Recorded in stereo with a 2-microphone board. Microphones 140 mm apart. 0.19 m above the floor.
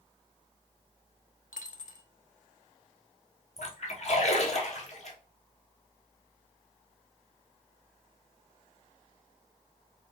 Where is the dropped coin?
70° left (ahead or behind), 0.6 m.